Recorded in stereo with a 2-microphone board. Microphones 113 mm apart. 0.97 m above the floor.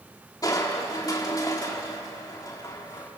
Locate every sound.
0.4 s crushing: 30° left (ahead or behind), 2.5 m